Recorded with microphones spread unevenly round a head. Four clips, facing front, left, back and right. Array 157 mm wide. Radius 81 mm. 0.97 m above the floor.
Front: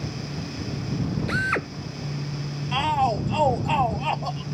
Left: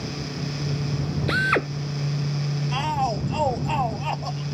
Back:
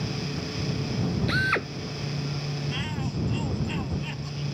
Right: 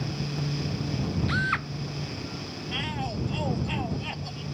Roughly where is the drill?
Left.